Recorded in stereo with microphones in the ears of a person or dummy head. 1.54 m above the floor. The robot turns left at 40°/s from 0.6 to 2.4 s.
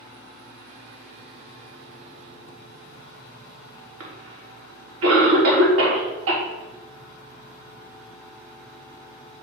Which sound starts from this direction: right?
A cough, at 4.0 s.